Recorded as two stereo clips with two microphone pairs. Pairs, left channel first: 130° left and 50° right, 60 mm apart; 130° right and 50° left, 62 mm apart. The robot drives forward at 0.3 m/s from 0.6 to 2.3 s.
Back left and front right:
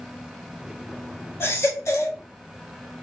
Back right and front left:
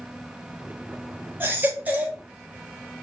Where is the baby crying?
95° left, 0.8 m; by 2.2 s 115° left, 0.8 m.